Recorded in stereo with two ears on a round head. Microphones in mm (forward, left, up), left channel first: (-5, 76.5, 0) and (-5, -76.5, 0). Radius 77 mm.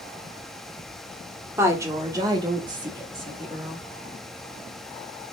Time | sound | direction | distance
1.6 | a woman speaking | 15° right (ahead or behind) | 0.9 m